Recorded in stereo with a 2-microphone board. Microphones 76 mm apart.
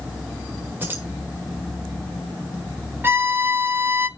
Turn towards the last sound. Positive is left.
turn(degrees=-30)  # may be behind; listen again after turning